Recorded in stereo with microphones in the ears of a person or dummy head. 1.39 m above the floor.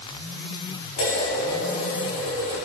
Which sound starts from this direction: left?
Dishes clattering, at 1.0 s.